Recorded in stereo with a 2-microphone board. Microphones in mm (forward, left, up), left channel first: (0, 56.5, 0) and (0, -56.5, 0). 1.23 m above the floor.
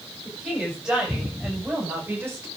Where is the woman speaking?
5° right (ahead or behind), 8.5 m; by 2.5 s 20° right (ahead or behind), 5.5 m.